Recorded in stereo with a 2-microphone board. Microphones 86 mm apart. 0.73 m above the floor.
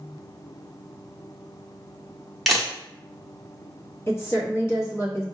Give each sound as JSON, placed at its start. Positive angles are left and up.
{"t": 2.5, "sound": "a camera shutter", "side_deg": 0, "distance_m": 1.0}
{"t": 4.1, "sound": "a woman speaking", "side_deg": 30, "distance_m": 1.1}